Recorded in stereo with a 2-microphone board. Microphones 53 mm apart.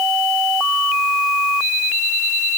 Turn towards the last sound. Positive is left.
No sound to turn to.